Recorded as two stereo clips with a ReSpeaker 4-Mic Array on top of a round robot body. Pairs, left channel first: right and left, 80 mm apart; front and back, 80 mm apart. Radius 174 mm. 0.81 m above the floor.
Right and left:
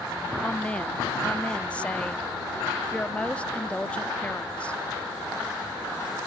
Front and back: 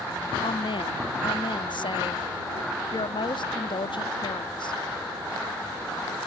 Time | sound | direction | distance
0.4 | a woman speaking | 15° right | ?